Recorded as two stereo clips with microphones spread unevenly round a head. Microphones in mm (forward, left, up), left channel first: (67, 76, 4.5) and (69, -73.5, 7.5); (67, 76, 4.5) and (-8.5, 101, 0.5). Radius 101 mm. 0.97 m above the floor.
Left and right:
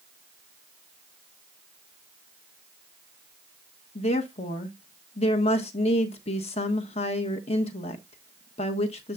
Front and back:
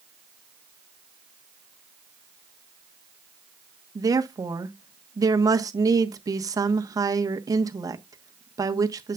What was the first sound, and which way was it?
A woman speaking, 135° left.